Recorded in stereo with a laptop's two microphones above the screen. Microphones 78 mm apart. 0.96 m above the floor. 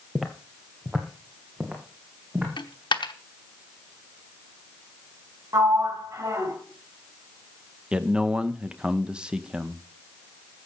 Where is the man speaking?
10° right (ahead or behind), 0.8 m.